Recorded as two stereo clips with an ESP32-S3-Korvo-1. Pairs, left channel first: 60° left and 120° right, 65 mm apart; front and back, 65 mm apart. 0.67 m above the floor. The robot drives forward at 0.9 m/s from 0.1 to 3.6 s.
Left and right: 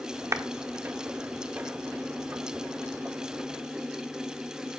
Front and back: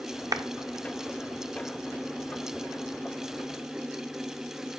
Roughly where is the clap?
Behind.